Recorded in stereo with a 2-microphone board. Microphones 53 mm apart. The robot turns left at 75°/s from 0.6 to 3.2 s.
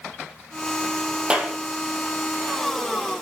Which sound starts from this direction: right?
A clap, at 1.3 s.